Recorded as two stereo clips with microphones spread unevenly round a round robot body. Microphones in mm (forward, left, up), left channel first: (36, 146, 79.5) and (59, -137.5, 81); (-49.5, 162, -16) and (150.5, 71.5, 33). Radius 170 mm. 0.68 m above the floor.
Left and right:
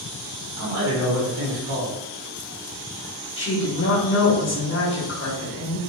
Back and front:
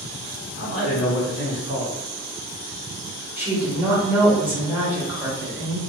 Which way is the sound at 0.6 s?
90° right.